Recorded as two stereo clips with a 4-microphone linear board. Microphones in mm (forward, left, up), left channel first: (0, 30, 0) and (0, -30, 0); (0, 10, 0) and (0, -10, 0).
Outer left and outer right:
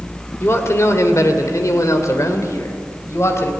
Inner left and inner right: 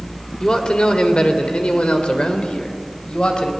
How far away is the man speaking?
About 2.5 m.